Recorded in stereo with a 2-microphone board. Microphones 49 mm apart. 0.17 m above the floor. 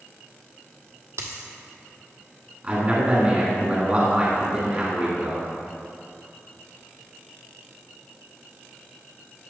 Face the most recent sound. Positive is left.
turn(degrees=-30)  # may be behind; listen again after turning